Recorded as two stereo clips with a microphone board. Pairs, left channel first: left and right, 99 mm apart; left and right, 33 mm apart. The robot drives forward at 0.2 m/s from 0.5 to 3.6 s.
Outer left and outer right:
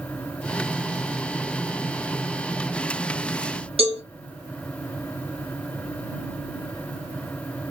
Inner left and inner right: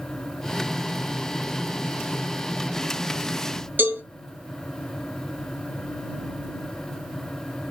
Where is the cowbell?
75° right (ahead or behind), 2.5 m.